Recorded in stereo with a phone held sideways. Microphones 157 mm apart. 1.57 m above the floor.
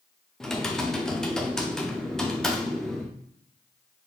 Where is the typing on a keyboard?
5° left (ahead or behind), 0.5 m.